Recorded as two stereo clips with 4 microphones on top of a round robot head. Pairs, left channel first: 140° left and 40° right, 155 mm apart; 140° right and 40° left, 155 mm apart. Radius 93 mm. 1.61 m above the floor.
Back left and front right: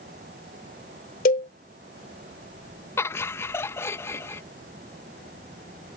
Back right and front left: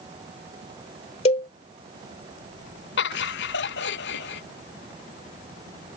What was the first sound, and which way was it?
A cowbell, 175° left.